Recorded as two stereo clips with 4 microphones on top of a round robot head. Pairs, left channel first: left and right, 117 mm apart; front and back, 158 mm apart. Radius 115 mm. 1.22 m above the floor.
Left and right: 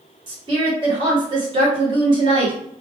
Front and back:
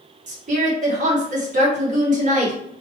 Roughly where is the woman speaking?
Behind right.